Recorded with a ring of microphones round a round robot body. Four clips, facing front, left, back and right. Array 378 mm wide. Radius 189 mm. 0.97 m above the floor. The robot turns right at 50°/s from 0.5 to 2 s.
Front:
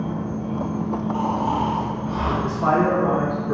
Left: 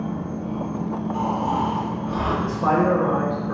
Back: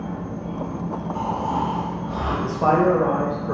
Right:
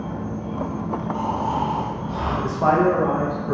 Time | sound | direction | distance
0.0 | an insect | 25° right | 1.3 m
1.1 | snoring | 10° left | 0.8 m
2.4 | a man speaking | 135° right | 0.7 m